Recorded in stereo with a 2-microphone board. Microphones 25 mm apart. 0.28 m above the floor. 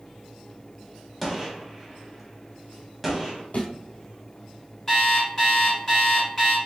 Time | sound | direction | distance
1.2 | a gunshot | 5° left (ahead or behind) | 1.1 m
3.5 | a thud | 65° left (ahead or behind) | 1.9 m
4.9 | an alarm clock | 20° left (ahead or behind) | 1.9 m